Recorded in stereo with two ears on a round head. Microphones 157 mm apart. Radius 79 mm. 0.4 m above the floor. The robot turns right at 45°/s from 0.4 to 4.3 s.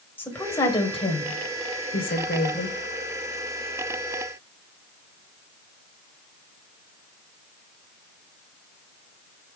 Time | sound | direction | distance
0.2 | a woman speaking | 10° left (ahead or behind) | 2.5 m